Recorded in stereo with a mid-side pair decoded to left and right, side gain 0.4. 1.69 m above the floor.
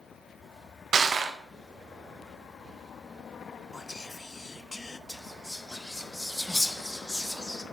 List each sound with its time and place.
0.9 s crushing: 60° right, 1.0 m
3.7 s whispering: 25° left, 0.6 m
5.1 s whispering: 10° left, 1.3 m